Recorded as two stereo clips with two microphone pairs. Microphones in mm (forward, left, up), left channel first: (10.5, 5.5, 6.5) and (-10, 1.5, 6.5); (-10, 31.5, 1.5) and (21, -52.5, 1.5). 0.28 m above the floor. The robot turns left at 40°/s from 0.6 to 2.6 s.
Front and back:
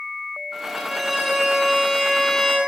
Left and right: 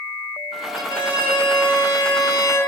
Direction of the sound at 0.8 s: 125° left.